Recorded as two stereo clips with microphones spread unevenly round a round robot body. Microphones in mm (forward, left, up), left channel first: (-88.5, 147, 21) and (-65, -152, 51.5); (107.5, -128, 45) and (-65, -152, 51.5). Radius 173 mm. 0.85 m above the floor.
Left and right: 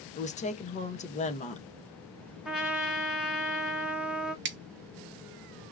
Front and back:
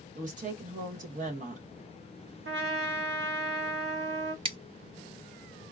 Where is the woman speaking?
150° left, 0.9 m.